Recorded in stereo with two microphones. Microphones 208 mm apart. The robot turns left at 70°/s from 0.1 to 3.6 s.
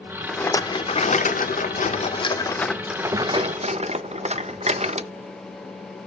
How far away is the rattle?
About 0.5 m.